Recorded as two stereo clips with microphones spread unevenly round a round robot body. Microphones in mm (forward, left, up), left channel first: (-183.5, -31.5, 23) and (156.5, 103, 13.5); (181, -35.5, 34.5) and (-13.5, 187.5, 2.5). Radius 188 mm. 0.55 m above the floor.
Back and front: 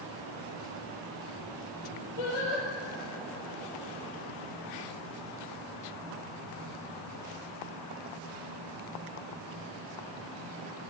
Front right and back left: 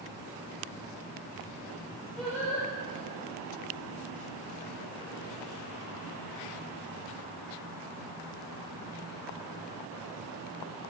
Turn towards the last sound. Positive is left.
turn(degrees=-140)